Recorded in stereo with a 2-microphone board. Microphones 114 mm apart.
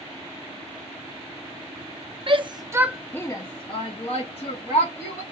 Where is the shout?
50° right (ahead or behind), 0.8 m; by 5.2 s 65° left (ahead or behind), 2.0 m.